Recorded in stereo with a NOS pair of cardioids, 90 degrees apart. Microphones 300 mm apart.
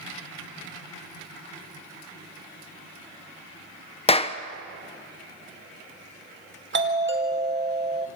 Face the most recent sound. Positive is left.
turn(degrees=-40)